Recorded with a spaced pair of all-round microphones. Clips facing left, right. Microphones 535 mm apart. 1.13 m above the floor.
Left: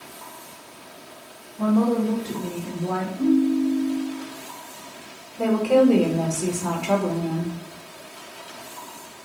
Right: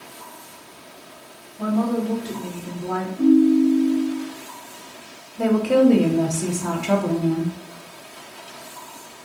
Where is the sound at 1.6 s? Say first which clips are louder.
Left 2 dB; 60° left (ahead or behind), 1.1 m.